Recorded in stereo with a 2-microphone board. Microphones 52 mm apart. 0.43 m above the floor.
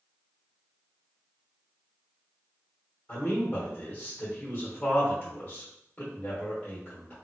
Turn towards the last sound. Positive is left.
turn(degrees=30)  # may be behind; listen again after turning